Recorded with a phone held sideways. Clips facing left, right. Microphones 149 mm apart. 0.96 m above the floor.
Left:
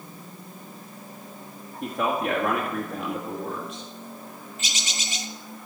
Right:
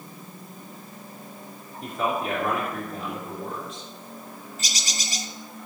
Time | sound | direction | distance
1.8 | a man speaking | 65° left (ahead or behind) | 2.0 m
4.6 | a bird | 40° right (ahead or behind) | 0.7 m